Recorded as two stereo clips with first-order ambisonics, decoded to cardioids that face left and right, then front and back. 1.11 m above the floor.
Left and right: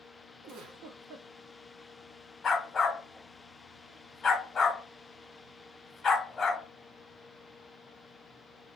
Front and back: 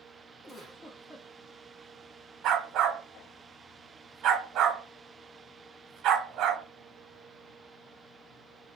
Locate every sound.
0.4 s a giggle: 75° right, 0.6 m
2.4 s a dog barking: 155° left, 0.9 m